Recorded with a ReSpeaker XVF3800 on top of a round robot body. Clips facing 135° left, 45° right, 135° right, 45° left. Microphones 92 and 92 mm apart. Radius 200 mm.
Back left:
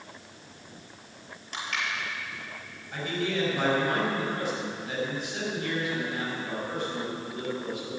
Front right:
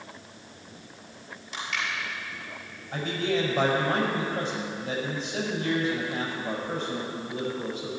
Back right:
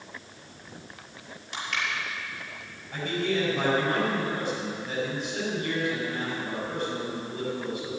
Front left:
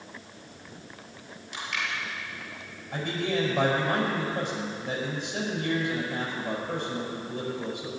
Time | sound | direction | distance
1.5 | crushing | straight behind | 5.5 m
2.9 | a man speaking | 15° left | 5 m